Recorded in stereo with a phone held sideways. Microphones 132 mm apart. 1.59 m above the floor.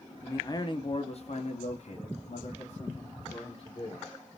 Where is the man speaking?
20° left (ahead or behind), 0.8 m; by 4.1 s 45° left (ahead or behind), 1.9 m.